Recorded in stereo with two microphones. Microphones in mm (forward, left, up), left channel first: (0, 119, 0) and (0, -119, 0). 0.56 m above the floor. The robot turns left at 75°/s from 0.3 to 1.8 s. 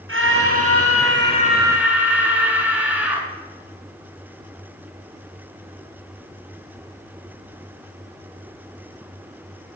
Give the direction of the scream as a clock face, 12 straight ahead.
2 o'clock.